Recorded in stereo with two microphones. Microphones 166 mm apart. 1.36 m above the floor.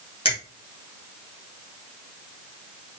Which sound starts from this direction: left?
A finger snap, at 0.2 s.